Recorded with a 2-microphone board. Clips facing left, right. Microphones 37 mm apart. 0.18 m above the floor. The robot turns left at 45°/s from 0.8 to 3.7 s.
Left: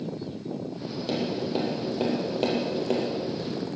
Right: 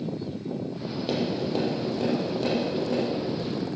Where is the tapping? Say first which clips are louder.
Right 1 dB; 10° right (ahead or behind), 5.5 m; by 3.0 s 70° left (ahead or behind), 5.5 m.